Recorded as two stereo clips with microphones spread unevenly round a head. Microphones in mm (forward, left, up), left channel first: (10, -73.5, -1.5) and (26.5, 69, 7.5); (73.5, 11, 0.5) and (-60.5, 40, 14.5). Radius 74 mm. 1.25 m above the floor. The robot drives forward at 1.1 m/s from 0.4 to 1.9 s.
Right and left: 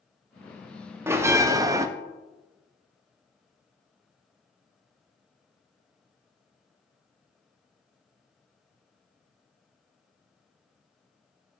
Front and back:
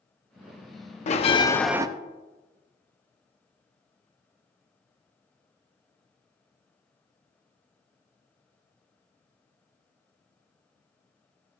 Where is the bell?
10° left, 0.9 m; by 1.9 s 135° left, 0.5 m.